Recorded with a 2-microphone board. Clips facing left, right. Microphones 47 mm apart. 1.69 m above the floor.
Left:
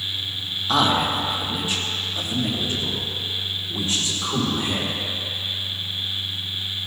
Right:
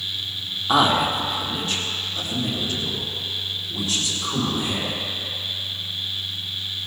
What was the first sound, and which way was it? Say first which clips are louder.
A man speaking: right 2 dB; 15° right (ahead or behind).